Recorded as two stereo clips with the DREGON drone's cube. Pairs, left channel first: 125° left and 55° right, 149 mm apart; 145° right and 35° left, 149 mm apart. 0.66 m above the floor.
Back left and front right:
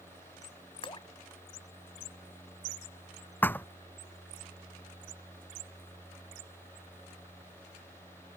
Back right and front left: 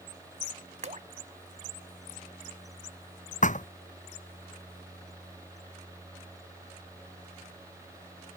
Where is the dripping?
70° left.